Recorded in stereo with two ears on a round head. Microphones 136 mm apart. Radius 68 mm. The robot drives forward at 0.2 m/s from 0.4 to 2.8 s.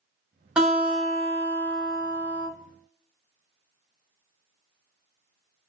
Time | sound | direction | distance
0.6 | a guitar | 5° right (ahead or behind) | 1.0 m